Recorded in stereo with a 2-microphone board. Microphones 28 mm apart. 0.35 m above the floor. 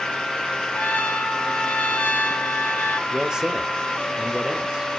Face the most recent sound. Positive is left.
turn(degrees=-25)  # may be behind; listen again after turning